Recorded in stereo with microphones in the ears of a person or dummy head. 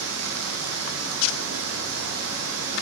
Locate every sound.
0.0 s running water: 65° right (ahead or behind), 0.9 m